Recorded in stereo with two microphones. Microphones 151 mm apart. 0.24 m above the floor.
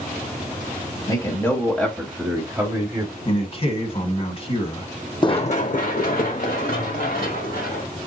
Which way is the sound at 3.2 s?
40° left (ahead or behind).